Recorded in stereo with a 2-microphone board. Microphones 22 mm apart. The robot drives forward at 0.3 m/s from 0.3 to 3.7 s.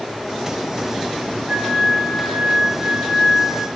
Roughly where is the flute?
Right.